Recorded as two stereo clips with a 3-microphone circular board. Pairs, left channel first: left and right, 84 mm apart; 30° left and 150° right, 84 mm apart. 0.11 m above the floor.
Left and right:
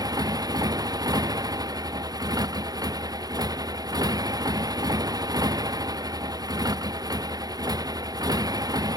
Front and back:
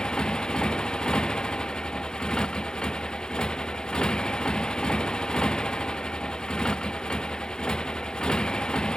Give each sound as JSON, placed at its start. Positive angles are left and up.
{"t": 0.0, "sound": "a motorcycle", "azimuth_deg": -50}